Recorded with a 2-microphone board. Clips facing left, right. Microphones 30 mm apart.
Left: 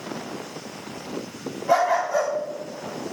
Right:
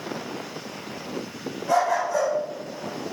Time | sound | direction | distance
1.7 | a dog barking | 15° left (ahead or behind) | 4 m